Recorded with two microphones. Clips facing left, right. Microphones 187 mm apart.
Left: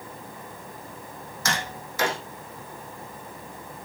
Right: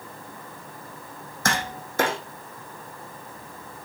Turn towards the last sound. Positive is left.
turn(degrees=-55)  # may be behind; listen again after turning